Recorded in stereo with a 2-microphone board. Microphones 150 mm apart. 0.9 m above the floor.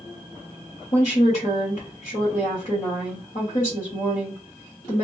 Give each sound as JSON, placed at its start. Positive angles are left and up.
{"t": 0.9, "sound": "a woman speaking", "side_deg": 55, "distance_m": 1.5}